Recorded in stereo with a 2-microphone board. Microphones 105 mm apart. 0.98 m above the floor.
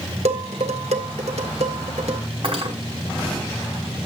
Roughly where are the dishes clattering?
Right.